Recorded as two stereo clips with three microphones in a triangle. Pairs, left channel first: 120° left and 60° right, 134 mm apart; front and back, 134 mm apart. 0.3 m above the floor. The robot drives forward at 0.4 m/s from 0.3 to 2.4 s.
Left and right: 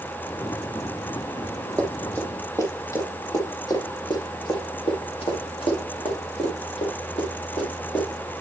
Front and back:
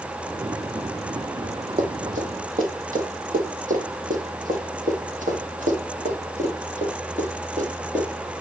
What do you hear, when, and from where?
1.8 s running footsteps: 160° right, 3 m; by 8.3 s 150° left, 4.5 m